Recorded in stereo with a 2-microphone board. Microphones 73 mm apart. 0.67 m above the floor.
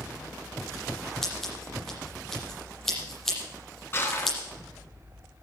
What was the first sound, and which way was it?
Scissors, 5° left (ahead or behind).